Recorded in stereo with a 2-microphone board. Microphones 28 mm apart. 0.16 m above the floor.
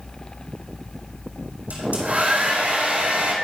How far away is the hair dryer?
About 2 m.